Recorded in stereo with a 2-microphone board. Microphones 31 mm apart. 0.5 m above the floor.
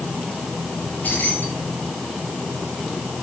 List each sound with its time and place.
0.8 s keys jangling: 70° left (ahead or behind), 7 m